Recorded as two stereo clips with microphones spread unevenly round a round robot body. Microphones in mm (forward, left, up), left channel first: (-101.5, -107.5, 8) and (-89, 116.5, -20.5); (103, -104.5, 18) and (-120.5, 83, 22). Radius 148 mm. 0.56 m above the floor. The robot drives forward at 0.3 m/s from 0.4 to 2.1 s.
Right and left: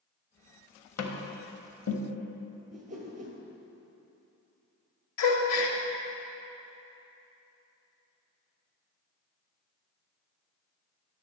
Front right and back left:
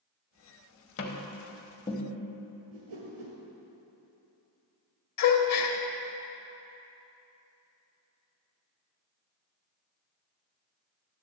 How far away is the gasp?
About 0.9 m.